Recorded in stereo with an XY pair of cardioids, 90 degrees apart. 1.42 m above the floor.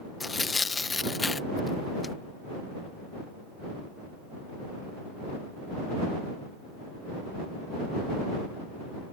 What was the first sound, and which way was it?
Tearing paper, 30° left.